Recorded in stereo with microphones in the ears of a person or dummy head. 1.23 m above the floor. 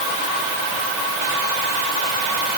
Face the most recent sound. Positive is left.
No sound to turn to.